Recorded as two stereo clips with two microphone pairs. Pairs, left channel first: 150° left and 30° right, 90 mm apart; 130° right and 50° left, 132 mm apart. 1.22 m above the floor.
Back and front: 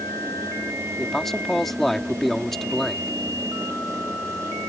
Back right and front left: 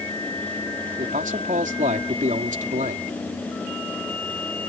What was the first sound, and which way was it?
A man speaking, 65° left.